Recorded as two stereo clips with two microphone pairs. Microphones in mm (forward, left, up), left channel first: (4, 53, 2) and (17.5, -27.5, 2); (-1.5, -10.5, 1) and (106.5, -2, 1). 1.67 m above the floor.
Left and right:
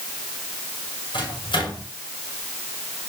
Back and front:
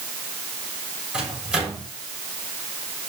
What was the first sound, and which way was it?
A microwave, 85° left.